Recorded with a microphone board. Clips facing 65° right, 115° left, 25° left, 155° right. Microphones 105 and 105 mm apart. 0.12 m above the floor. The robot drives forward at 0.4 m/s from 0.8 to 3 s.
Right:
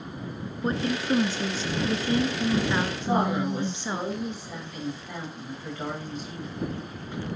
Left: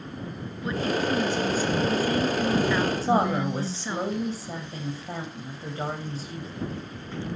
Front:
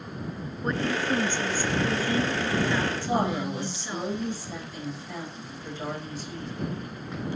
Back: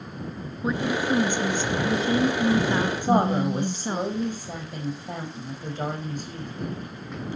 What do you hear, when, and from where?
0.6 s a woman speaking: 80° right, 1.3 m; by 4.0 s 135° right, 1.5 m
3.0 s a woman speaking: 165° left, 5.5 m